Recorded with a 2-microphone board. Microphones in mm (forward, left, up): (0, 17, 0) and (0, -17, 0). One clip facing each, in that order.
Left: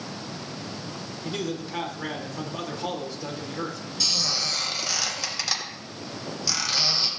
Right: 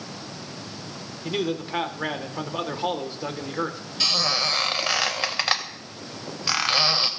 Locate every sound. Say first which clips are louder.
1.2 s a man speaking: right 5 dB; 30° right (ahead or behind), 1.4 m
4.0 s a squeak: right 4 dB; 45° right (ahead or behind), 1.3 m